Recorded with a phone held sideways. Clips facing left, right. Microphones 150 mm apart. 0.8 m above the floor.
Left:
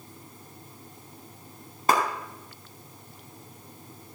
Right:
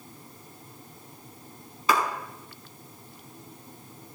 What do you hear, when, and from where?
1.9 s a clap: 50° left (ahead or behind), 5 m